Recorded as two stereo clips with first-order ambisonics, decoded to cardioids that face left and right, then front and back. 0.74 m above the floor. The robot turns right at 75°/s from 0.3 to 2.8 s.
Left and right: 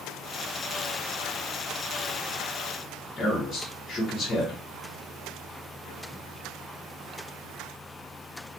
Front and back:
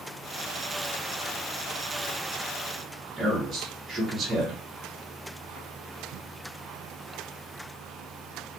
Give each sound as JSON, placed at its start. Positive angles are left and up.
{"t": 3.2, "sound": "a man speaking", "azimuth_deg": 130, "distance_m": 0.9}